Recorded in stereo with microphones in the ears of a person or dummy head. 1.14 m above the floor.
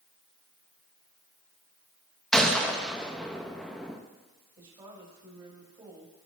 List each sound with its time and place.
2.3 s a gunshot: 5° left (ahead or behind), 1.3 m
4.6 s a woman speaking: 25° right (ahead or behind), 5 m